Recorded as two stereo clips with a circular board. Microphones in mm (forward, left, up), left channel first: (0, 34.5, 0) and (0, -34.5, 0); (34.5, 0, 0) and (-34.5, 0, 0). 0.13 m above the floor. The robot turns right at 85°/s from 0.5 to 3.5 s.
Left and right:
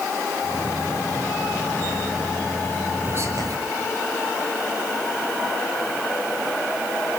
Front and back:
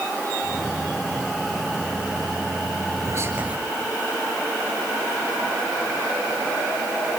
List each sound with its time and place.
3.0 s whispering: 145° right, 3 m; by 3.6 s 110° right, 3 m